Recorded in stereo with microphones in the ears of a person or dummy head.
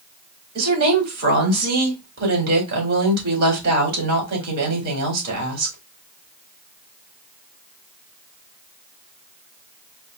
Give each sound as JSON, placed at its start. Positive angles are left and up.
{"t": 0.6, "sound": "a woman speaking", "side_deg": -60, "distance_m": 3.5}